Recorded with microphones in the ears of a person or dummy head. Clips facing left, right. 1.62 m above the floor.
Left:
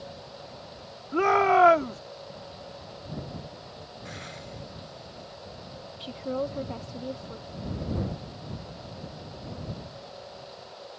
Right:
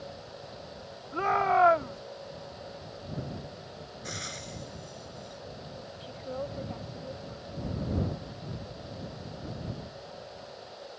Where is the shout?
50° left (ahead or behind).